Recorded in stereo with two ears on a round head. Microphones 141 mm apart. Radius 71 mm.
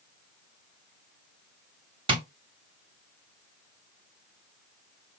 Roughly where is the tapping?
Right.